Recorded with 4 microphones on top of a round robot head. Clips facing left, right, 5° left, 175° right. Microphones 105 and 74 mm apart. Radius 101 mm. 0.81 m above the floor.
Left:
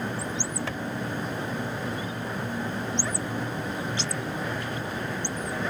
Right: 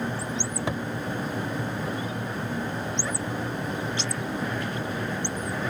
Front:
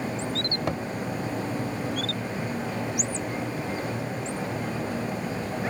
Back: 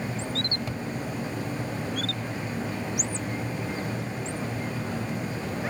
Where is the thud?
25° right.